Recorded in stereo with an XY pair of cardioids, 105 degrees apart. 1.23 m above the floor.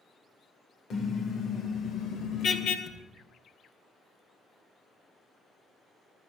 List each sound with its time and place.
0.9 s a car horn: 55° left, 2.5 m; by 2.8 s 75° left, 3 m
2.9 s a thud: 55° left, 5 m